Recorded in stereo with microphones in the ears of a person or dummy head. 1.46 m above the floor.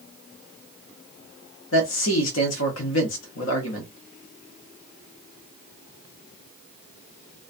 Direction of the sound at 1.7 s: 65° left (ahead or behind).